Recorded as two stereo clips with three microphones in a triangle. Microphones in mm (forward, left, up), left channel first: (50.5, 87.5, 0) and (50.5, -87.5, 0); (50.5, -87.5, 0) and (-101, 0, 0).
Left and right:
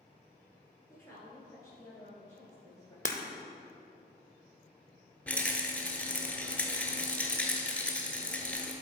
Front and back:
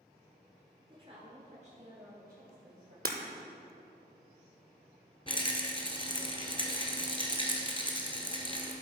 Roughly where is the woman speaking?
Behind left.